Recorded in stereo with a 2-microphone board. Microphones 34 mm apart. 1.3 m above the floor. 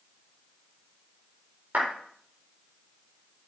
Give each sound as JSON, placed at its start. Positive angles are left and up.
{"t": 1.7, "sound": "a clap", "side_deg": -50, "distance_m": 4.5}